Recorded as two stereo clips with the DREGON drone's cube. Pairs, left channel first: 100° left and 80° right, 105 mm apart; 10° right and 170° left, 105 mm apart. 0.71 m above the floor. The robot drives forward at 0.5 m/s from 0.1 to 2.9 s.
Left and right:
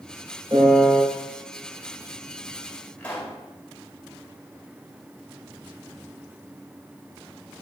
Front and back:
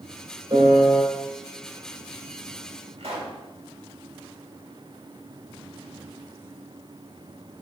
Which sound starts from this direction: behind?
A pop, at 3.0 s.